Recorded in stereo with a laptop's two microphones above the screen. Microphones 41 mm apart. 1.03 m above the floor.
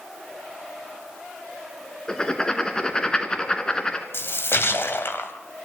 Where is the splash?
75° left (ahead or behind), 2 m.